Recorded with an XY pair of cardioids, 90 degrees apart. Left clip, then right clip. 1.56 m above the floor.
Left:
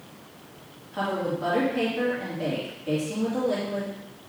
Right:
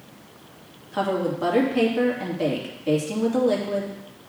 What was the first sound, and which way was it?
A woman speaking, 55° right.